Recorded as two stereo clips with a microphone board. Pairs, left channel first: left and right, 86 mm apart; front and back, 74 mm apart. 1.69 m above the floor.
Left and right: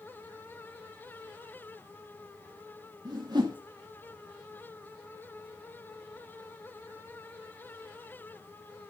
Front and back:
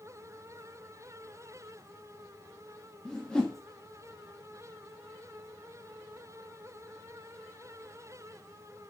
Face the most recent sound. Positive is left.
turn(degrees=-75)